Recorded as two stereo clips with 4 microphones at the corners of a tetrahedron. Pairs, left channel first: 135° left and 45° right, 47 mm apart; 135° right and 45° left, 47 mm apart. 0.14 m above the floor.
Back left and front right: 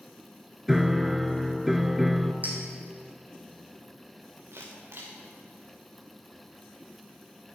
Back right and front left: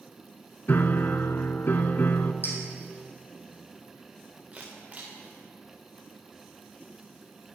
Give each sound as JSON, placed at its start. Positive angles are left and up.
{"t": 0.7, "sound": "a piano", "azimuth_deg": -130, "distance_m": 0.6}
{"t": 2.4, "sound": "a clink", "azimuth_deg": -95, "distance_m": 3.0}
{"t": 4.5, "sound": "a camera shutter", "azimuth_deg": -20, "distance_m": 3.5}